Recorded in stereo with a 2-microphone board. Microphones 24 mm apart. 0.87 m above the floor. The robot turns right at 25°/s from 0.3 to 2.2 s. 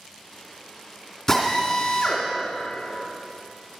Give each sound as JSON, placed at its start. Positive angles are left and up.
{"t": 1.3, "sound": "a drill", "side_deg": 20, "distance_m": 2.5}